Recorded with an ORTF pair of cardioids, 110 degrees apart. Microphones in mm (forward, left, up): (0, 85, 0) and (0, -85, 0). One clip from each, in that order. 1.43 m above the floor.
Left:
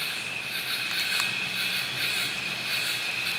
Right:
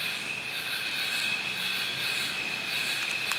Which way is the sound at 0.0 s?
70° left.